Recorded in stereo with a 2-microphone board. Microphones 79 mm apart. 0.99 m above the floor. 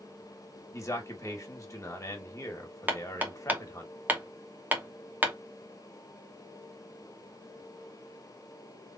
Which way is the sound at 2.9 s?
20° right (ahead or behind).